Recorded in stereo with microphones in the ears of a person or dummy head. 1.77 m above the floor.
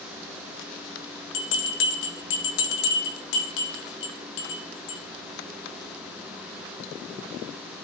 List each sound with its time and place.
1.3 s a bell: 70° left (ahead or behind), 2.0 m